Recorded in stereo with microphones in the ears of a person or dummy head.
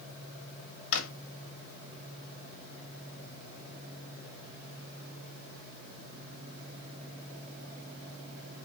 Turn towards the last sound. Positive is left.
turn(degrees=65)  # may be behind; listen again after turning